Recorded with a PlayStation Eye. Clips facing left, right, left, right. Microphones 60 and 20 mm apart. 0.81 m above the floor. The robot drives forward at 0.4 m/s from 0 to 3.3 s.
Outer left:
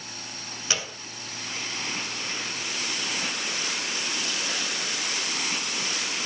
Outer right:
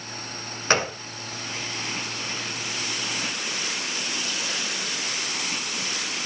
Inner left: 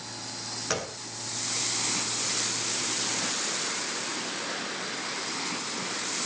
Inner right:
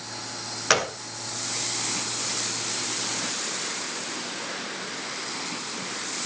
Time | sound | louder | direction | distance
0.7 | a gunshot | outer right 10 dB, inner right 10 dB | 45° right (ahead or behind) | 0.7 m